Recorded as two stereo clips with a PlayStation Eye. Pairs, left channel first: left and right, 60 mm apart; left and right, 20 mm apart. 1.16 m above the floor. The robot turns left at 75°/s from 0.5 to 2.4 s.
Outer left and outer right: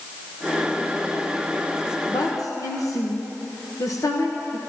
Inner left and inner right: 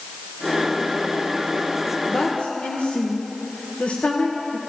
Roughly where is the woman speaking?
Left.